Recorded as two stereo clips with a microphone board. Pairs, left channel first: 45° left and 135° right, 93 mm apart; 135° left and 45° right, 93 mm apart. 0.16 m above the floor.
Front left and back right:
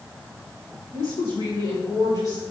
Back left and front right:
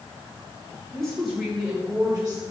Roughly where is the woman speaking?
Ahead left.